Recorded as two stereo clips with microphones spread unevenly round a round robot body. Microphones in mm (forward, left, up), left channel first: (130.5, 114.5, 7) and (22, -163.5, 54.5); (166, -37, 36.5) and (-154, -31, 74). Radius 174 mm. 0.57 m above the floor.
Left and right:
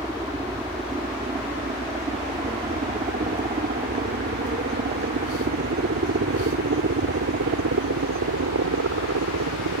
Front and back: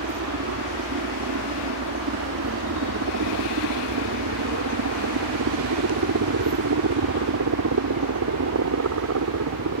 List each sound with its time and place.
0.0 s a helicopter: 165° left; by 9.8 s 150° right